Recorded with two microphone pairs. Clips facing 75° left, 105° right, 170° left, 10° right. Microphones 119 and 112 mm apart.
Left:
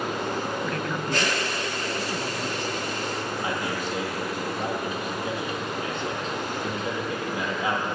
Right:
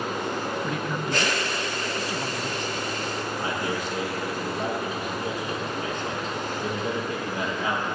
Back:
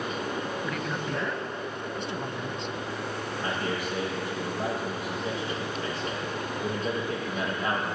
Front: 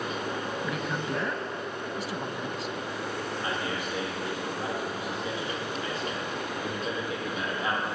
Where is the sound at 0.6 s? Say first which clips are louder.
Even, even; 85° right, 1.1 m.